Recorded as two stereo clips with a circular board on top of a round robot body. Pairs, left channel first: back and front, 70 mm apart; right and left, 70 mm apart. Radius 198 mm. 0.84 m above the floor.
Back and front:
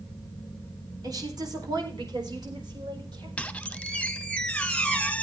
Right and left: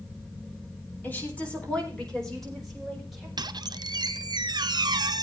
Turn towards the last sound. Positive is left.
turn(degrees=105)